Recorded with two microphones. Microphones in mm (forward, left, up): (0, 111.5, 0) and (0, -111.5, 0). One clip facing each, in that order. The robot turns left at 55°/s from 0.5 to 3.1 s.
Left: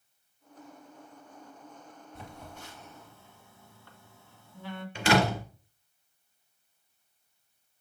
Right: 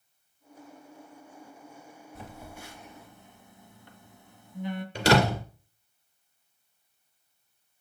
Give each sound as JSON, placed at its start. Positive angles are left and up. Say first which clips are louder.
{"t": 2.1, "sound": "a phone buzzing", "louder": "right 2 dB", "side_deg": 0, "distance_m": 1.4}
{"t": 5.0, "sound": "a door slam", "louder": "right 2 dB", "side_deg": -40, "distance_m": 2.0}